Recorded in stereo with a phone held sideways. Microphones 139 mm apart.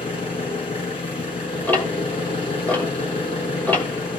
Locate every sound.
0.0 s an engine running: 40° left (ahead or behind), 5 m
1.7 s ticking: 10° left (ahead or behind), 2.5 m